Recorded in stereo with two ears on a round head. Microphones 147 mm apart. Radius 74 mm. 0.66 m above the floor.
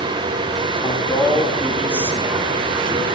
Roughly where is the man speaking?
Left.